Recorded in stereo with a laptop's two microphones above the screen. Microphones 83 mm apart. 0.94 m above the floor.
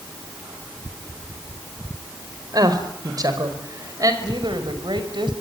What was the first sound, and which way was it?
A woman speaking, 50° right (ahead or behind).